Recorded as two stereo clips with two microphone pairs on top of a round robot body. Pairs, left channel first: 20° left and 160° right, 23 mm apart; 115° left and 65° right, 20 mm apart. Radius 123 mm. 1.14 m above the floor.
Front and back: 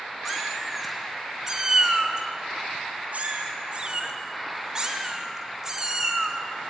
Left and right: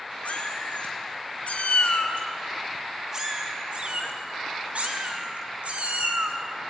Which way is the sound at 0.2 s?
120° left.